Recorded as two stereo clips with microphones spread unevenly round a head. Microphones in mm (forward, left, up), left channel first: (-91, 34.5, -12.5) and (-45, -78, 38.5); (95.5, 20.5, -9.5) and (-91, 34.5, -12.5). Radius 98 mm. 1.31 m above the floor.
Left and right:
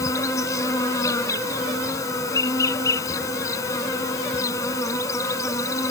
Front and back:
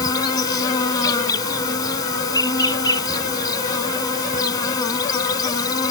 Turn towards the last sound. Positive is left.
turn(degrees=15)